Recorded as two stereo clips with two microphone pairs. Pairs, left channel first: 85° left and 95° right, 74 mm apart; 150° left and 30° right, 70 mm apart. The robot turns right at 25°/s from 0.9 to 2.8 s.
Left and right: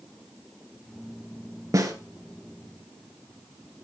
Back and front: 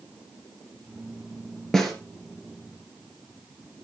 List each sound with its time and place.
1.7 s a snare drum: 130° right, 2.5 m; by 1.9 s 125° right, 2.5 m